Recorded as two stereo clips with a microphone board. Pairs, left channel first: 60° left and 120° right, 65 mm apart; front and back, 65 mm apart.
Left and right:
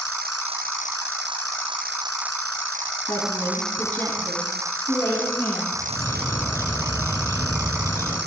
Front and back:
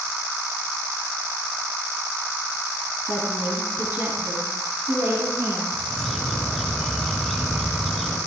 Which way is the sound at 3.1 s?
120° left.